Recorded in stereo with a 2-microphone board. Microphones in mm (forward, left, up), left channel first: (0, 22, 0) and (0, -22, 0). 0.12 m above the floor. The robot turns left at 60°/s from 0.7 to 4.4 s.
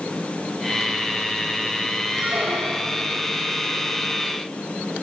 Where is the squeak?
15° right, 1.6 m; by 3.0 s 70° right, 1.6 m.